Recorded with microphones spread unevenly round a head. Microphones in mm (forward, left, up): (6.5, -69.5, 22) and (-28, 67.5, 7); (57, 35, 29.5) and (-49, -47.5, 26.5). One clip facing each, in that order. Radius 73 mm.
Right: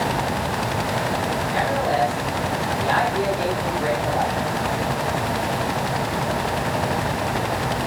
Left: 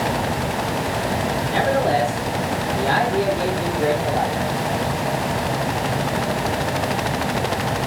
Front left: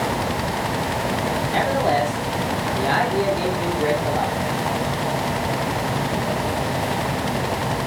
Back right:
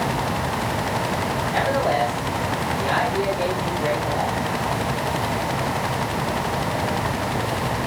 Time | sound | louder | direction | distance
1.5 | a man speaking | left 4 dB, front left 1 dB | 105° left | 3 m